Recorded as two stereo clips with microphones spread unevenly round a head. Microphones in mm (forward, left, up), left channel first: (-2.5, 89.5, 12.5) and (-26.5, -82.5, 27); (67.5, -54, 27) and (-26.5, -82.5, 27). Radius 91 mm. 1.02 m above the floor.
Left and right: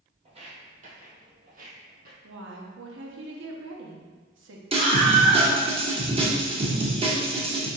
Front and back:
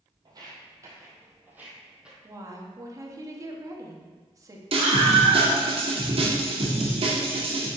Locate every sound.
0.2 s footsteps: 135° right, 1.4 m; by 2.1 s 85° right, 1.6 m
2.2 s a woman speaking: 110° right, 1.2 m
4.7 s a scream: 155° right, 1.8 m